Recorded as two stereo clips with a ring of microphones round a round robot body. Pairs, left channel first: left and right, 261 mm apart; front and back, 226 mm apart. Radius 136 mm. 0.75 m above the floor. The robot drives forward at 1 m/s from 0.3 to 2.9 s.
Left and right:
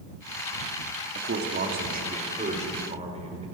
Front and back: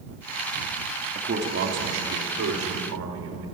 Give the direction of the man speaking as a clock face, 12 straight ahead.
4 o'clock.